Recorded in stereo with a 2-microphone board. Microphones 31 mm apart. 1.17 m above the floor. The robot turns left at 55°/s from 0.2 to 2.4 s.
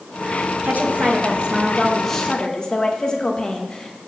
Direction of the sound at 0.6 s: 110° right.